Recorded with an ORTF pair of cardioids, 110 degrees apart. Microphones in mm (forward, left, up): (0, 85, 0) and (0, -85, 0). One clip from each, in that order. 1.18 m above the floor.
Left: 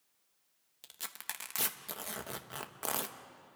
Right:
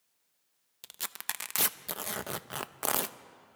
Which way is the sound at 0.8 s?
30° right.